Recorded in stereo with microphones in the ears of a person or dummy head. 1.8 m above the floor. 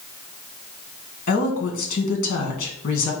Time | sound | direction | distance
1.3 | a woman speaking | 50° left (ahead or behind) | 1.3 m